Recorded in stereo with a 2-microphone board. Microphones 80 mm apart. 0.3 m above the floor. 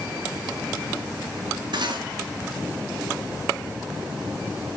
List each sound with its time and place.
1.7 s cutlery clinking: 70° right (ahead or behind), 2.0 m